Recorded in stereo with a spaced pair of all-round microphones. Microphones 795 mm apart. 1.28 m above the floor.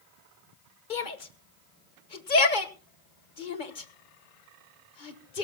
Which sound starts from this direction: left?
A shout, at 0.9 s.